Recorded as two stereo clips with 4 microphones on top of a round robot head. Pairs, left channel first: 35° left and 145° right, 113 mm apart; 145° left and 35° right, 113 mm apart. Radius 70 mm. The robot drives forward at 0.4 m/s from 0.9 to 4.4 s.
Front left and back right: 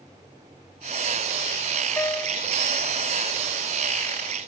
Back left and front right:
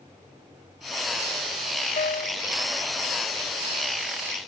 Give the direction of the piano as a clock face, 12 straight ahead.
8 o'clock.